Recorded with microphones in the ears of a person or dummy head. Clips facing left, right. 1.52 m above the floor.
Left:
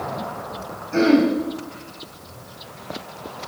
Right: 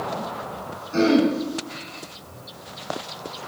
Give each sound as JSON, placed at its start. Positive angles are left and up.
{"t": 0.9, "sound": "throat clearing", "side_deg": 30, "distance_m": 3.5}